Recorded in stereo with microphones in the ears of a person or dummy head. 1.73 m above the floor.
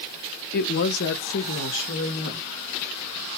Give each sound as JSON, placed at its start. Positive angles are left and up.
{"t": 0.5, "sound": "a woman speaking", "side_deg": 50, "distance_m": 0.7}